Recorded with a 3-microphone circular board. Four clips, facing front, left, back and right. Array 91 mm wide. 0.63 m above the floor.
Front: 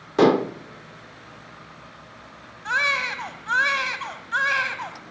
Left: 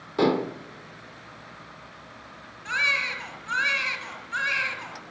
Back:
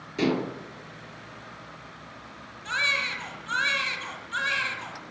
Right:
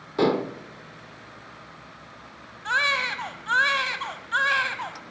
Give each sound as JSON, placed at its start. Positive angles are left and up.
{"t": 0.2, "sound": "dishes clattering", "azimuth_deg": 0, "distance_m": 0.8}
{"t": 2.6, "sound": "a baby crying", "azimuth_deg": -50, "distance_m": 1.3}